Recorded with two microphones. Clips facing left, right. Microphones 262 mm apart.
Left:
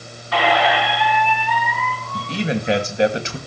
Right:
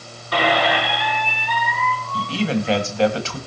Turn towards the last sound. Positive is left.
turn(degrees=20)  # may be behind; listen again after turning